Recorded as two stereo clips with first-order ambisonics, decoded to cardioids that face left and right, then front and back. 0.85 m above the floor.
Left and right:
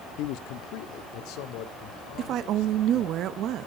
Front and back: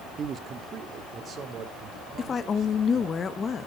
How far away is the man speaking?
About 0.8 m.